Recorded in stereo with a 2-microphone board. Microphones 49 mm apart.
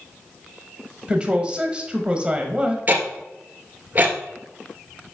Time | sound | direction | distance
1.1 | a woman speaking | 20° right (ahead or behind) | 1.0 m
2.9 | ticking | 35° right (ahead or behind) | 1.2 m